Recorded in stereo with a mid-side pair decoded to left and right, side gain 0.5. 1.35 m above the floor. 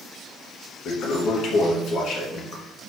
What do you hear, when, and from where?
0.8 s a toilet flushing: 65° left, 1.7 m